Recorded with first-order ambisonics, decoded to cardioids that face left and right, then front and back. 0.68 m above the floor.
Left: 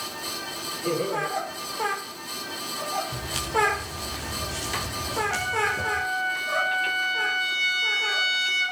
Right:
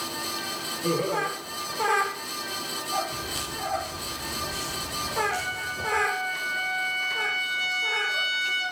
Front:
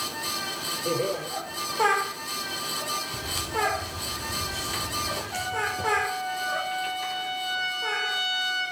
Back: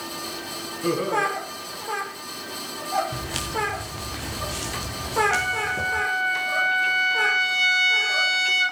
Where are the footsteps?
150° left, 6 m; by 6.0 s 155° left, 8 m.